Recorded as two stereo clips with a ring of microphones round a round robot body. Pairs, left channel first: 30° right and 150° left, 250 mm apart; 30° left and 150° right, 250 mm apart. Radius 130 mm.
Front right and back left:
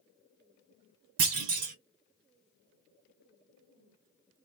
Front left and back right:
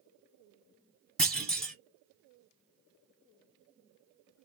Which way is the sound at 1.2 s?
115° left.